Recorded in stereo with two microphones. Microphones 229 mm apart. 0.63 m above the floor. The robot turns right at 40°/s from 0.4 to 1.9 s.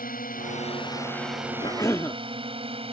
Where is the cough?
20° left (ahead or behind); by 2.2 s 10° left (ahead or behind).